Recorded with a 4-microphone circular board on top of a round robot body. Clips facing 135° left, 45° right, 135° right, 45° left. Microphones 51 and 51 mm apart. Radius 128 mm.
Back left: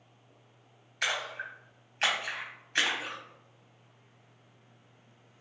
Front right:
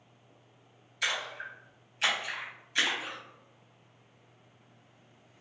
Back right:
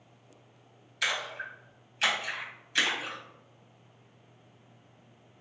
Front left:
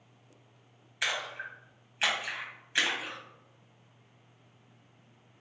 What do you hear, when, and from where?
1.0 s a splash: 105° left, 1.2 m